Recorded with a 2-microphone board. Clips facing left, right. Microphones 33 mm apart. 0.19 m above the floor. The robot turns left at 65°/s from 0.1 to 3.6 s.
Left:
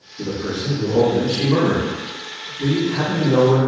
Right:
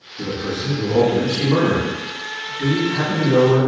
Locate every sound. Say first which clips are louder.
0.2 s a man speaking: even; 20° right (ahead or behind), 1.4 m; by 3.6 s 30° left (ahead or behind), 1.4 m